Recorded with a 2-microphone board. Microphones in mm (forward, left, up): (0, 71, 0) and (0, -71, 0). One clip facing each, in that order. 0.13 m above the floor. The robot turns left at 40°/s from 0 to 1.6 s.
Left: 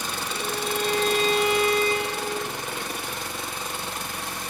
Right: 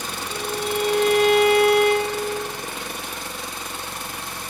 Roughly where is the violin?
Ahead right.